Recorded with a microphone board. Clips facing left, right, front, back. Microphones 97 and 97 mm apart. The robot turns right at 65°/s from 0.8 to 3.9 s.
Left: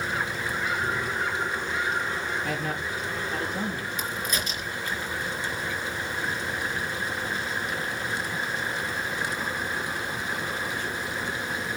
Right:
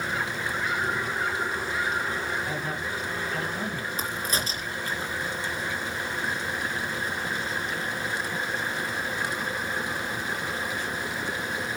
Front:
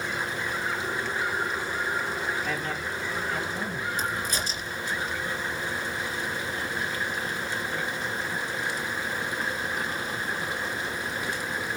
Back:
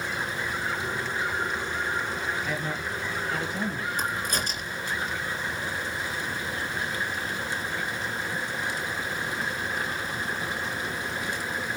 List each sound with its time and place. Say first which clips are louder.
2.4 s a man speaking: left 1 dB, even; 90° left, 6 m; by 4.0 s 175° right, 6 m
4.0 s a crack: right 2 dB, back 1 dB; 145° right, 3 m